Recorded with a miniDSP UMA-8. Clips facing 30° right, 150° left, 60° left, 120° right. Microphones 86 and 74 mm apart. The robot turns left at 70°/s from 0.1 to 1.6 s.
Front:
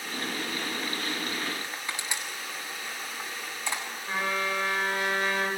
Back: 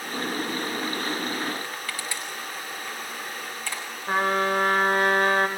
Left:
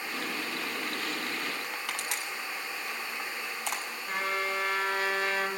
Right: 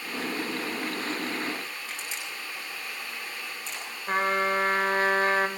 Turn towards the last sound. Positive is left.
turn(degrees=-170)